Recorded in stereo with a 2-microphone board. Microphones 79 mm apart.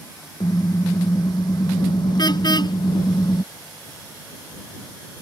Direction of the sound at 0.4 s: 60° left (ahead or behind).